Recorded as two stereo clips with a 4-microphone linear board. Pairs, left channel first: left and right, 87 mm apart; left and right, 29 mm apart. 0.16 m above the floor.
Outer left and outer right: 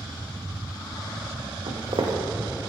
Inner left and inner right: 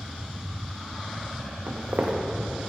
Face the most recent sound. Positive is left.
turn(degrees=-80)